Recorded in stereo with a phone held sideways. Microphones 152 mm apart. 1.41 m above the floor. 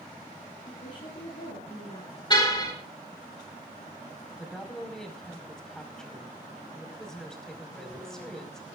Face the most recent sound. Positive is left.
turn(degrees=5)  # may be behind; listen again after turning